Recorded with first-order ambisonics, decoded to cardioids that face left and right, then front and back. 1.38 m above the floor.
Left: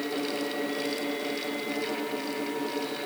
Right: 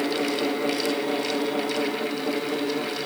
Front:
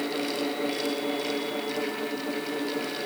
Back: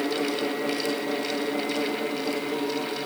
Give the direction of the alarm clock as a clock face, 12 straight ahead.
No alarm clock in this recording.